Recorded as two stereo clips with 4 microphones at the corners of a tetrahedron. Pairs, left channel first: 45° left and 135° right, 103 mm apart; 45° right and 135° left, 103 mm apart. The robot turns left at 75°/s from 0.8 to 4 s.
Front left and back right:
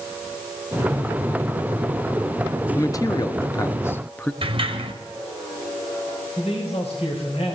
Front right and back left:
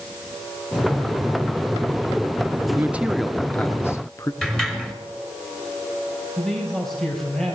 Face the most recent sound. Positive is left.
turn(degrees=40)